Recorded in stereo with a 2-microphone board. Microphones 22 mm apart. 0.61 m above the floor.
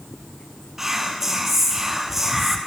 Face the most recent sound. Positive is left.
turn(degrees=-10)  # may be behind; listen again after turning